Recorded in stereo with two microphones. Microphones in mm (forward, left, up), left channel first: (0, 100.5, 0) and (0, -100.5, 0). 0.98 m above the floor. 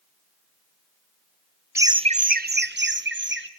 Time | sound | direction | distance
1.8 | laughter | 10° right (ahead or behind) | 0.5 m